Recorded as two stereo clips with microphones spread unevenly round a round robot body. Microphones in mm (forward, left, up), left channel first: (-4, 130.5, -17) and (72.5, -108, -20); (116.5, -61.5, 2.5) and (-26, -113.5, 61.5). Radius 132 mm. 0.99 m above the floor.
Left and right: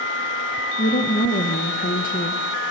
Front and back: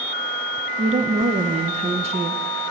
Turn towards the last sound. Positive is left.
turn(degrees=140)